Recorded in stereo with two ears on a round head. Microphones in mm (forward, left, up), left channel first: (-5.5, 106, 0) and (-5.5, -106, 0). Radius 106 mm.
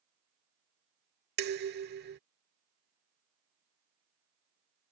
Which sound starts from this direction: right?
Dishes clattering, at 1.4 s.